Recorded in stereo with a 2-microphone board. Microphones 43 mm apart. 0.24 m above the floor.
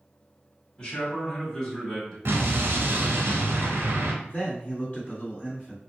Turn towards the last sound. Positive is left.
turn(degrees=40)  # may be behind; listen again after turning